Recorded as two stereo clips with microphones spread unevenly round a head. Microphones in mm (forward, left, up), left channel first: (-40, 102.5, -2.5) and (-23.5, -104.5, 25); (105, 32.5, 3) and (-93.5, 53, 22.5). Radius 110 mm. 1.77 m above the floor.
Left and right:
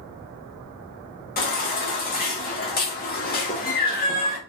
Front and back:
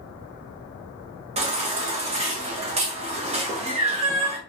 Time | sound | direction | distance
1.4 | a baby crying | 135° left | 1.3 m